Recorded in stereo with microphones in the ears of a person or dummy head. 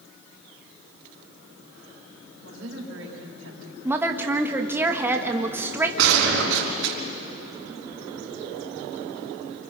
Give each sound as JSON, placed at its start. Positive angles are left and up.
{"t": 2.4, "sound": "a woman speaking", "side_deg": -80, "distance_m": 4.5}
{"t": 3.9, "sound": "a woman speaking", "side_deg": -15, "distance_m": 1.5}
{"t": 6.0, "sound": "a gunshot", "side_deg": -75, "distance_m": 4.0}